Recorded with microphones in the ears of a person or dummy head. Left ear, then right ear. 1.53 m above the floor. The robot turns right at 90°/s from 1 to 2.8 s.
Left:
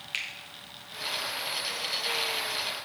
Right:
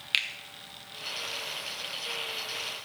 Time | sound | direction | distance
0.1 | a finger snap | 25° right (ahead or behind) | 0.7 m